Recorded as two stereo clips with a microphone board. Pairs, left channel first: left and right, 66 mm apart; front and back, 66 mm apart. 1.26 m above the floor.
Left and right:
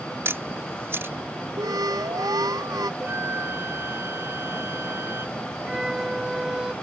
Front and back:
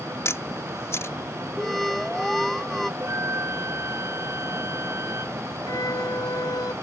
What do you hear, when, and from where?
0.2 s a camera shutter: 45° right
1.6 s an alarm: 90° right
3.0 s a flute: 140° right
5.7 s a violin: 10° right